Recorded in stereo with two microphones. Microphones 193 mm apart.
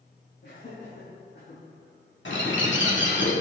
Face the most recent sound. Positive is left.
turn(degrees=75)  # may be behind; listen again after turning